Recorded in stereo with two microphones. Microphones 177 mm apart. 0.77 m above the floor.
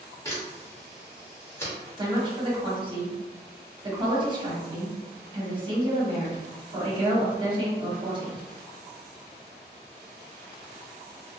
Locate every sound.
0.2 s a camera shutter: 15° left (ahead or behind), 1.0 m
2.0 s a woman speaking: 25° right (ahead or behind), 1.1 m